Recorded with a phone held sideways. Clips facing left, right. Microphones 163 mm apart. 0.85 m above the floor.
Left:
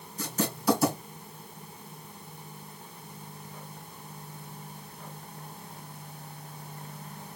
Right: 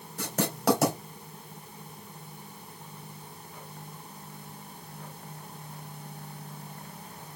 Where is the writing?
75° right (ahead or behind), 2.5 m.